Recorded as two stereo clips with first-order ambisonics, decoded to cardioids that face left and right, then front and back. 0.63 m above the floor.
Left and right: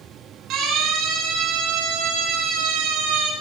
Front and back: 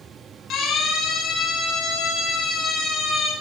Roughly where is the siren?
Ahead right.